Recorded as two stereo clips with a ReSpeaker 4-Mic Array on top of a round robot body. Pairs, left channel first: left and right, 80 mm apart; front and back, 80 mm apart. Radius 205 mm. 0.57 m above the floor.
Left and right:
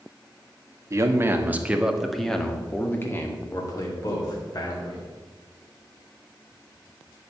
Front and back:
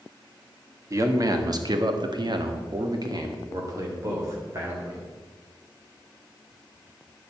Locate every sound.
0.9 s a man speaking: 140° right, 1.9 m; by 5.1 s 120° left, 3.5 m